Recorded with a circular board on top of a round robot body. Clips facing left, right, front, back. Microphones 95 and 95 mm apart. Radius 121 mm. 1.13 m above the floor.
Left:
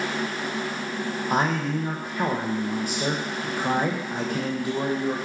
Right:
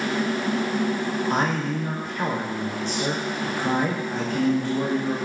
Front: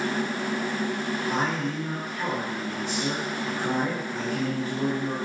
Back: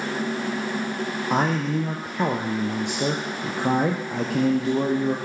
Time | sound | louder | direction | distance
1.3 | a man speaking | left 3 dB, back 7 dB | 170° left | 0.7 m